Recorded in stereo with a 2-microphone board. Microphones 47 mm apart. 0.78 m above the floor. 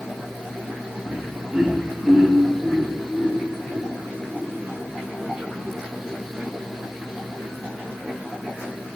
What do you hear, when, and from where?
1.1 s laughter: 10° right (ahead or behind), 1.5 m; by 4.4 s 5° right (ahead or behind), 3.5 m